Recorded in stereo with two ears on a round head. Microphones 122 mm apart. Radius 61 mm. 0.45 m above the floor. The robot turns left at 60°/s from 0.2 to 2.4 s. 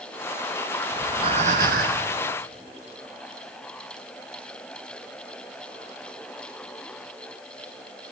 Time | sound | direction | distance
0.9 | breathing | 20° right | 2.5 m